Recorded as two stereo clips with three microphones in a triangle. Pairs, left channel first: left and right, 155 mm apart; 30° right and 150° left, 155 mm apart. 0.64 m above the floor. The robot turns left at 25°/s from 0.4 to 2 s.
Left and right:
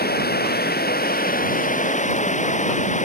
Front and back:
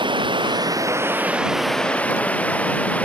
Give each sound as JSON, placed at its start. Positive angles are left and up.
{"t": 0.0, "sound": "running water", "azimuth_deg": 90}